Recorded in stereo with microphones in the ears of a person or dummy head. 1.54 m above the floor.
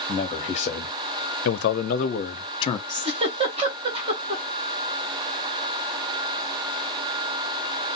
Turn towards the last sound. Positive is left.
turn(degrees=-30)  # may be behind; listen again after turning